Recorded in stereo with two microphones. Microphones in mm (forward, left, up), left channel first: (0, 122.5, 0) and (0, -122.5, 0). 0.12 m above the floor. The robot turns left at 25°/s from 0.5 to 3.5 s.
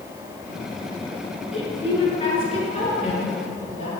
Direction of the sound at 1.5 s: 25° left (ahead or behind).